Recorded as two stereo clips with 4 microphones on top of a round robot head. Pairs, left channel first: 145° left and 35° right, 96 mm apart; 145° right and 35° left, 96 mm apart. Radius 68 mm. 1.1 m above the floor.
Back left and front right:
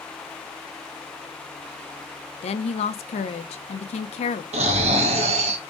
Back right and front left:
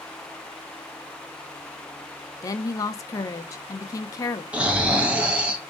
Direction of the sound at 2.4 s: 155° left.